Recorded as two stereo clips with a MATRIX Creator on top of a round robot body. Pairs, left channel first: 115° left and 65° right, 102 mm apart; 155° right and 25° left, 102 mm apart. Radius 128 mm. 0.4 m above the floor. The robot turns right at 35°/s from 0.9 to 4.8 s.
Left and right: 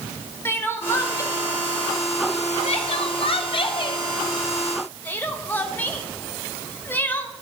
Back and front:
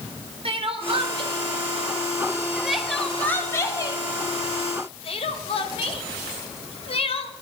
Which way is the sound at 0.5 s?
45° left.